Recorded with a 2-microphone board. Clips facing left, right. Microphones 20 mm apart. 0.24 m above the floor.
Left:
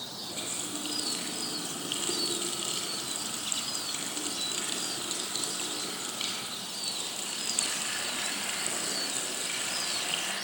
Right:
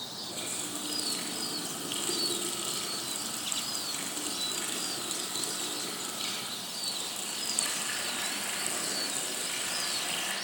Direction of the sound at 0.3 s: 25° left (ahead or behind).